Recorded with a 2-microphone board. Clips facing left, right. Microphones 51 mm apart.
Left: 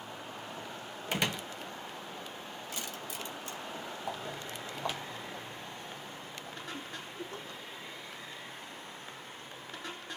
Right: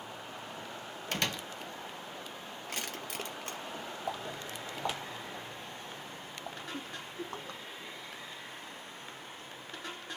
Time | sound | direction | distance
1.1 | a door slam | 10° left (ahead or behind) | 0.7 m
2.7 | crushing | 45° right (ahead or behind) | 2.5 m
4.1 | footsteps | centre (ahead or behind) | 2.5 m
6.7 | a giggle | 40° right (ahead or behind) | 3 m